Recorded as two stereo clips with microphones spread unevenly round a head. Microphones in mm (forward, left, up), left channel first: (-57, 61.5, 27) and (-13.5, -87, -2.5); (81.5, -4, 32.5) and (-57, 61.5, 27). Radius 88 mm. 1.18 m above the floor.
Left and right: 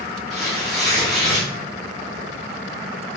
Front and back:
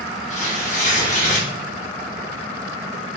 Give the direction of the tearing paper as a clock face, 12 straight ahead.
11 o'clock.